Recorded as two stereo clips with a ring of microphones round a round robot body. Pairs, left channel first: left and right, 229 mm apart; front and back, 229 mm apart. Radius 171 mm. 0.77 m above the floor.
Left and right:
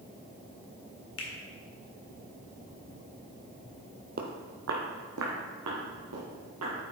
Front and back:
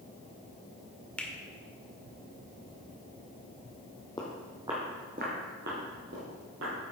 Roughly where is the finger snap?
Left.